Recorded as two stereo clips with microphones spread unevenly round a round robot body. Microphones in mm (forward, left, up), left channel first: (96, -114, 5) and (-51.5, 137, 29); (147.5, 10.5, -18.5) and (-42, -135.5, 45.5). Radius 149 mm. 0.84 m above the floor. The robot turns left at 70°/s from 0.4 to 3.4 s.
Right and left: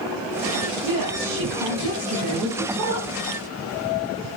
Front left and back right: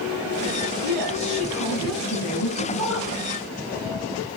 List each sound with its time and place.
0.8 s a woman speaking: 150° left, 8 m; by 3.2 s 15° right, 8 m